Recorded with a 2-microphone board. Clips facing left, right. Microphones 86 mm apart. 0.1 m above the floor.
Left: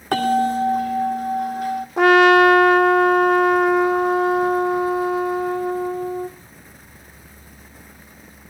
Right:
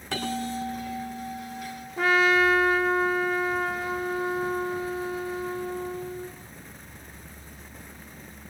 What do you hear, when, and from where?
0.1 s a bell: 45° left (ahead or behind), 2.5 m
2.0 s a trumpet: 70° left (ahead or behind), 0.9 m